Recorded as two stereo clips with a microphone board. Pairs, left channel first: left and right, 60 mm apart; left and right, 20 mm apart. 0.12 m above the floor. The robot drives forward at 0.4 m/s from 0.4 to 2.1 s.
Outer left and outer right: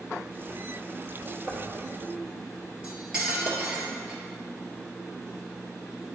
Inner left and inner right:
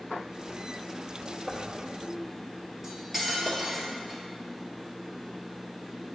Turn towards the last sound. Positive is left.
turn(degrees=-15)  # may be behind; listen again after turning